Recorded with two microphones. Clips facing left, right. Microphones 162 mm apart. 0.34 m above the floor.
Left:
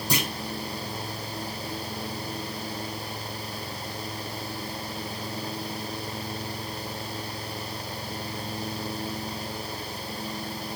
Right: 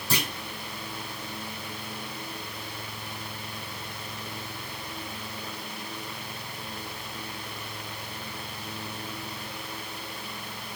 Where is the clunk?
15° left (ahead or behind), 1.7 m.